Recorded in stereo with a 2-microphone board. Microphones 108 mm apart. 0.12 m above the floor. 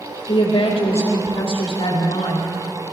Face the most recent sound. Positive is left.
turn(degrees=70)  # may be behind; listen again after turning